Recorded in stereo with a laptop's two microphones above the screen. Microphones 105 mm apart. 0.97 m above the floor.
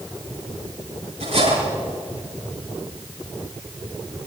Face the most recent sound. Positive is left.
turn(degrees=-90)